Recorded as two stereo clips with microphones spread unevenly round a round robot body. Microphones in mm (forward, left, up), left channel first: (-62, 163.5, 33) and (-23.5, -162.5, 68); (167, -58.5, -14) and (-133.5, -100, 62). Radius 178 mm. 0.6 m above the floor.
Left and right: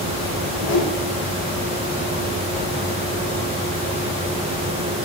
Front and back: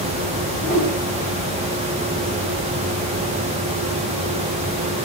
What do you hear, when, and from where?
0.4 s a whoosh: 100° left, 3.5 m